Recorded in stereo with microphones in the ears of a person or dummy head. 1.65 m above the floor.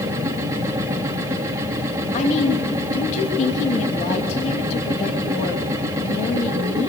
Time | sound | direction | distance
0.0 | a machine running | 20° right (ahead or behind) | 3 m
2.1 | a woman speaking | 35° left (ahead or behind) | 2.5 m